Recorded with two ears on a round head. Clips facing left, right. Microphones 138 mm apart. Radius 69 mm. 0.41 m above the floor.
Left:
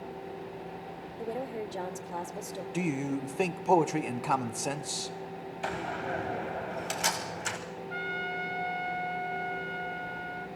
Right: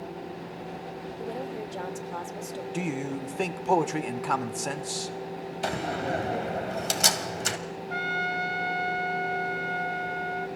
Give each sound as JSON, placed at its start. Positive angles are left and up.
{"t": 1.2, "sound": "a woman speaking", "side_deg": 10, "distance_m": 0.8}
{"t": 2.7, "sound": "a man speaking", "side_deg": 5, "distance_m": 0.7}
{"t": 5.6, "sound": "a door slam", "side_deg": -45, "distance_m": 2.0}
{"t": 7.9, "sound": "a trumpet", "side_deg": -60, "distance_m": 1.1}